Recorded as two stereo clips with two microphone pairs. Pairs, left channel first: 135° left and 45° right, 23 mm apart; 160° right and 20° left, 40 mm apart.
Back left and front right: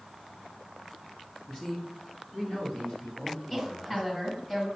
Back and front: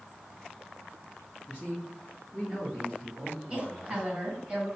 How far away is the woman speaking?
About 2.0 m.